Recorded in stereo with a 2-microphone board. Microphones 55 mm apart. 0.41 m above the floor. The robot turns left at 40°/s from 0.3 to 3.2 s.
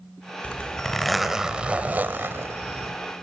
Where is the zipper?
30° left, 1.3 m; by 3.0 s 70° right, 1.3 m.